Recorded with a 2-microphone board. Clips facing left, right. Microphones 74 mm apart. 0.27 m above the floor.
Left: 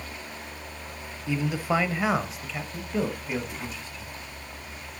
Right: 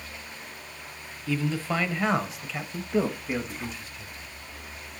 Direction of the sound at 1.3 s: 20° left (ahead or behind).